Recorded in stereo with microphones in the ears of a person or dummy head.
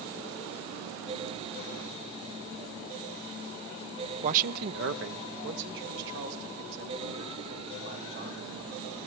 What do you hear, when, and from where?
4.2 s a man speaking: 40° right (ahead or behind), 0.6 m; by 8.5 s 75° right (ahead or behind), 5.5 m